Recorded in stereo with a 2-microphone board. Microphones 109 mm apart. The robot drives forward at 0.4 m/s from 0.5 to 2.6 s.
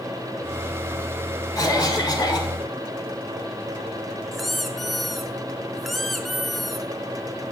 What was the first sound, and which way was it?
A cough, 35° left (ahead or behind).